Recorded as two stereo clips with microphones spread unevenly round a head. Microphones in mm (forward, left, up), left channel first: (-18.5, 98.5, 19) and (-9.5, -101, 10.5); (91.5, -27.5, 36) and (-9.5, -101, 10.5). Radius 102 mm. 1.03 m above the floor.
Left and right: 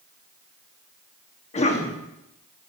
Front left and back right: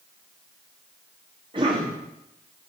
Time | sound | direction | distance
1.5 | a cough | 155° left | 1.7 m